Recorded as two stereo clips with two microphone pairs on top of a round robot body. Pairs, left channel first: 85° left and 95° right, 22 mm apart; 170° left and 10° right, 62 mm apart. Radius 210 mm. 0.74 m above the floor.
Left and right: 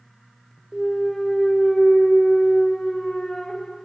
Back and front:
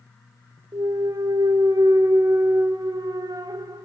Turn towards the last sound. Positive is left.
turn(degrees=10)